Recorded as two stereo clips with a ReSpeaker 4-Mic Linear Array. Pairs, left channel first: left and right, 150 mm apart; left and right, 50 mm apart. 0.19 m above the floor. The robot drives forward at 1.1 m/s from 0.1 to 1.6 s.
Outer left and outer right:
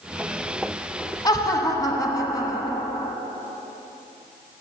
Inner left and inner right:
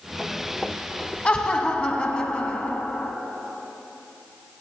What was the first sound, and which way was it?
Laughter, 25° left (ahead or behind).